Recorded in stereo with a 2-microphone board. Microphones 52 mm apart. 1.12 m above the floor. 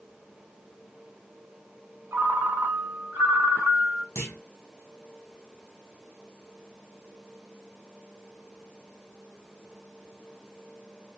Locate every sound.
2.1 s a ringtone: 55° right (ahead or behind), 0.9 m
4.2 s a clunk: 60° left (ahead or behind), 1.0 m